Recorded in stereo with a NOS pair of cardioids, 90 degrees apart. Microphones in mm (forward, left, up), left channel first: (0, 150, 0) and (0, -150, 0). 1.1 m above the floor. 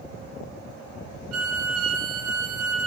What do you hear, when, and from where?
1.3 s a violin: 55° right, 0.6 m